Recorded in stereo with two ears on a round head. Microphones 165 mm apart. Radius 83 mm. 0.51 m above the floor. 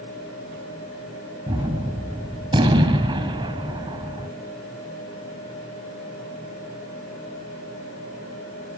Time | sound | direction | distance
1.5 | a gunshot | 25° right (ahead or behind) | 1.8 m